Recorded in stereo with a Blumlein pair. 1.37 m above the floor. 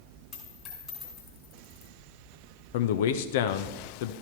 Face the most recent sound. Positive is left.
turn(degrees=55)